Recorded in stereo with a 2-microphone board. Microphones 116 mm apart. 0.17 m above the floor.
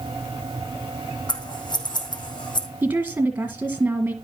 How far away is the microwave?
No microwave in this recording.